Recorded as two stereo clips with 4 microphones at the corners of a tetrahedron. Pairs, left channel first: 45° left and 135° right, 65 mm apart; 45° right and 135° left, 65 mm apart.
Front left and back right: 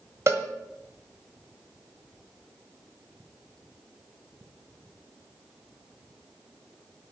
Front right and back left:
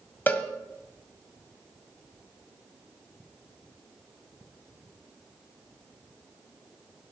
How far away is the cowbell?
About 1.6 m.